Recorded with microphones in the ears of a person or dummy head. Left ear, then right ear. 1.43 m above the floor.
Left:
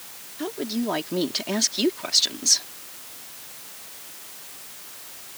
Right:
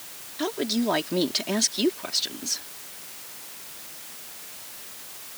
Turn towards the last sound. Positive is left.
turn(degrees=30)  # may be behind; listen again after turning